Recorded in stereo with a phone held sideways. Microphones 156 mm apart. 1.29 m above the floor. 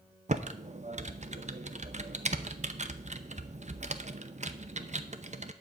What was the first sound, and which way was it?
Typing on a keyboard, 50° right (ahead or behind).